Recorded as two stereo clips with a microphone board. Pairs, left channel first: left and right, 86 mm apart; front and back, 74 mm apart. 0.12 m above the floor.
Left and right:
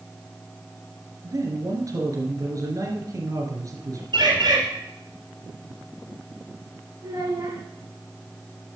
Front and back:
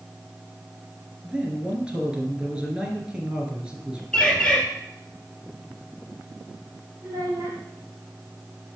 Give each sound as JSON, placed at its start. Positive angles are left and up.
{"t": 1.2, "sound": "a man speaking", "azimuth_deg": -110, "distance_m": 2.0}
{"t": 4.1, "sound": "a bird", "azimuth_deg": -80, "distance_m": 3.0}
{"t": 7.0, "sound": "a child speaking", "azimuth_deg": -135, "distance_m": 5.5}